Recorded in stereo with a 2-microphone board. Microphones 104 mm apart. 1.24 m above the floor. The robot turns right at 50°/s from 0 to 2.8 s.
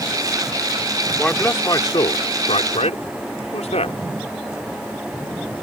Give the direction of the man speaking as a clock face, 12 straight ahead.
12 o'clock.